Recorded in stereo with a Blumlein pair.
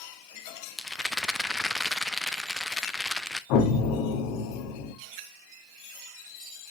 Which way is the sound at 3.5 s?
45° left.